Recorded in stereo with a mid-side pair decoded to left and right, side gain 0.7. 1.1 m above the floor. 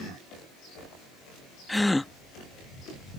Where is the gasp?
5° left.